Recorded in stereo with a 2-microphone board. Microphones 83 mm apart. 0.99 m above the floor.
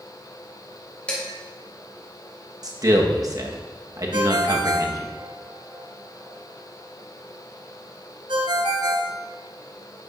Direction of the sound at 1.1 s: 15° left (ahead or behind).